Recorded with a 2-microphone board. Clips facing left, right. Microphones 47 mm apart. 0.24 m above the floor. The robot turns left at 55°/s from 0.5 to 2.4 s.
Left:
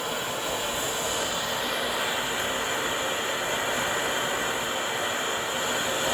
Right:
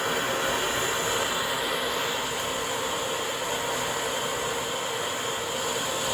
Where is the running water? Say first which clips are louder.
Right 4 dB; 110° right, 1.4 m; by 6.1 s 150° left, 1.4 m.